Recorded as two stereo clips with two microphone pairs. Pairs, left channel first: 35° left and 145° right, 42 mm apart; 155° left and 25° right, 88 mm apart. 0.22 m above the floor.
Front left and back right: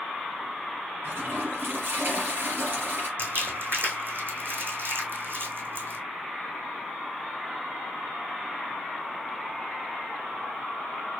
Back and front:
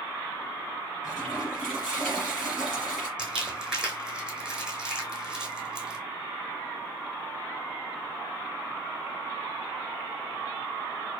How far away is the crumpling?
About 1.7 m.